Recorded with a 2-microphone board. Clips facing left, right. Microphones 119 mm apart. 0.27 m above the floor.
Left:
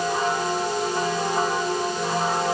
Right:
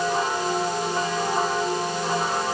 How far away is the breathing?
No breathing in this recording.